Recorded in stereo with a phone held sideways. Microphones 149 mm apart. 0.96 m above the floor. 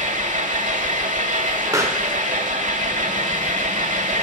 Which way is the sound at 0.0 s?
60° right (ahead or behind).